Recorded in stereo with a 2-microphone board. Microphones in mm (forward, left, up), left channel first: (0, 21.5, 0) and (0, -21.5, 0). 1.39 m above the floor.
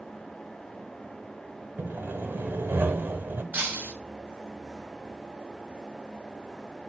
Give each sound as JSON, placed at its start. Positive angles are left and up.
{"t": 1.8, "sound": "sawing", "side_deg": -50, "distance_m": 1.7}
{"t": 3.5, "sound": "breaking glass", "side_deg": -45, "distance_m": 5.0}